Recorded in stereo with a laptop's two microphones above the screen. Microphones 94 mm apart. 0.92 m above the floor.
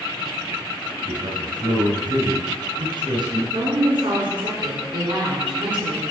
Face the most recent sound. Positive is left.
turn(degrees=-65)  # may be behind; listen again after turning